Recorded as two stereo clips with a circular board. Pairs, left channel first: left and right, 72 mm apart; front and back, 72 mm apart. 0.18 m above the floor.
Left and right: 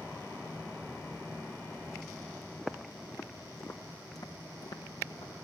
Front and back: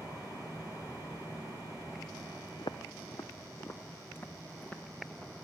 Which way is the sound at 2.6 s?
Straight ahead.